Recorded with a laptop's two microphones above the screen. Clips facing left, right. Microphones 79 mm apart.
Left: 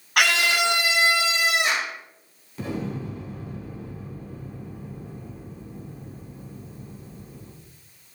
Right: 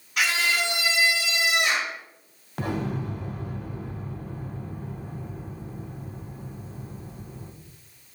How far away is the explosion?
About 1.4 m.